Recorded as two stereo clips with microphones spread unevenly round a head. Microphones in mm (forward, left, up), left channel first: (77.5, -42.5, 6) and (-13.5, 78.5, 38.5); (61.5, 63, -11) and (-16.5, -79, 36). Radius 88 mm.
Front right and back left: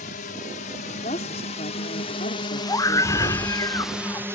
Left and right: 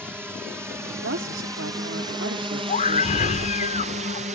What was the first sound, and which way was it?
A drone, 35° right.